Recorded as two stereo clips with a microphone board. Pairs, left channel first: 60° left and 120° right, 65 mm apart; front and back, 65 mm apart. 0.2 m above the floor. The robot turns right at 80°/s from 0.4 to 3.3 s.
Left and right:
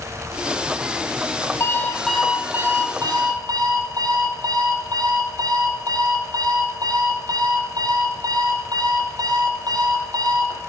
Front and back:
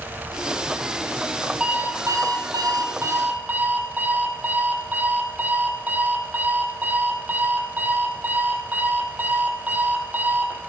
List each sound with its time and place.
1.6 s an alarm clock: 105° left, 4 m; by 10.6 s 120° right, 4 m